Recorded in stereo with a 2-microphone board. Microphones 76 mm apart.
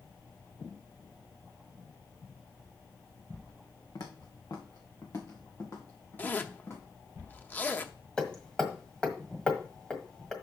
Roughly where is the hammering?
Centre.